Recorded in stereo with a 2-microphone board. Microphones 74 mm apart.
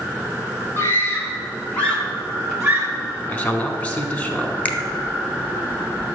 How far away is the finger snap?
About 0.9 m.